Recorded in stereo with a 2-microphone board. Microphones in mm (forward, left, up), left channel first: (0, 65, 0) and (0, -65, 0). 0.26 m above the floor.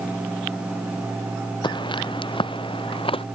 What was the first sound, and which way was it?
Footsteps, 35° left (ahead or behind).